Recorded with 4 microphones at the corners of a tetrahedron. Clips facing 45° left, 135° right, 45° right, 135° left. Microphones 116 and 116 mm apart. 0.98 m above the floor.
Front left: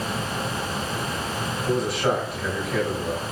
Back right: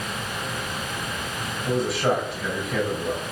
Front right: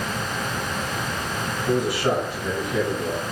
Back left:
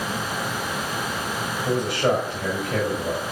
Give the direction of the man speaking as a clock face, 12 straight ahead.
8 o'clock.